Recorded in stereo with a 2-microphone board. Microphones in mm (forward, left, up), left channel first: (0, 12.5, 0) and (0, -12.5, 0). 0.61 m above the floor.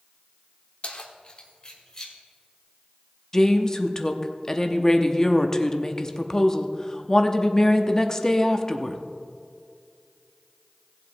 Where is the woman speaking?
20° left (ahead or behind), 0.7 m.